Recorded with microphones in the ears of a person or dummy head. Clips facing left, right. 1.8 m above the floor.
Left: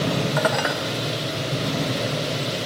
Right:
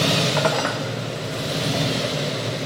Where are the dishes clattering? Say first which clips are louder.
Right 1 dB; 5° left (ahead or behind), 1.5 m.